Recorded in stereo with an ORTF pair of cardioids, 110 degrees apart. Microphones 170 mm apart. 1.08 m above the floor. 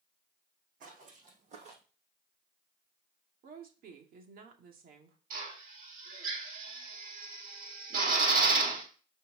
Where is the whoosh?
I don't hear a whoosh.